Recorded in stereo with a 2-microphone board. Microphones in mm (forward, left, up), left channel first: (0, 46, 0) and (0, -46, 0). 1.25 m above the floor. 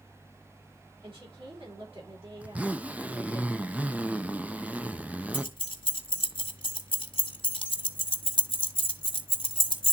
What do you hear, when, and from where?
1.0 s a woman speaking: 70° right (ahead or behind), 3.5 m
2.4 s a zipper: 15° right (ahead or behind), 0.5 m
5.3 s keys jangling: 70° left (ahead or behind), 1.0 m